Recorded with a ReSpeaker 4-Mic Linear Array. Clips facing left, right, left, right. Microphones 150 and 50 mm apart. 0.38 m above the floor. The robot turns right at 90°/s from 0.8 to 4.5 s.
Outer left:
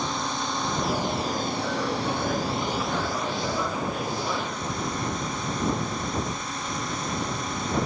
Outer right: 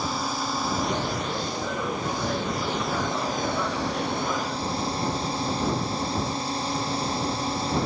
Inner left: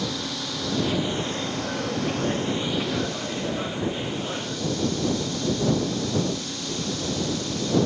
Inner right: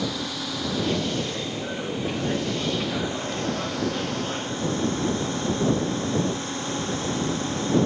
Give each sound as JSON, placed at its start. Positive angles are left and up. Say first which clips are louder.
{"t": 0.0, "sound": "a drone", "louder": "outer right 1 dB, inner right 1 dB", "azimuth_deg": -5}